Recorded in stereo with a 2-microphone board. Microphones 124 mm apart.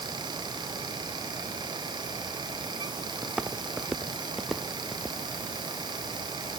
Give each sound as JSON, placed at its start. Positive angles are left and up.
{"t": 3.2, "sound": "footsteps", "side_deg": -5}